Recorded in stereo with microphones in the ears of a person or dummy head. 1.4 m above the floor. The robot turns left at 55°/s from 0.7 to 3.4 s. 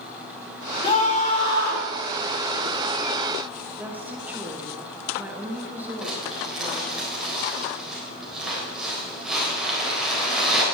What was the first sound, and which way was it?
A scream, 150° left.